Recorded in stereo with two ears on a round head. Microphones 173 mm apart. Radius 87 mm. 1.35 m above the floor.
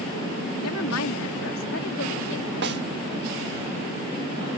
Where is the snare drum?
55° right (ahead or behind).